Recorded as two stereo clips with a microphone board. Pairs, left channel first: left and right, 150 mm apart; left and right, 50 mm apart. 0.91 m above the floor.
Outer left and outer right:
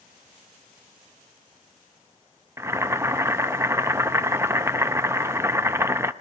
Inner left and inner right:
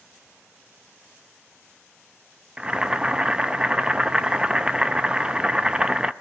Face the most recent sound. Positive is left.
turn(degrees=-15)  # may be behind; listen again after turning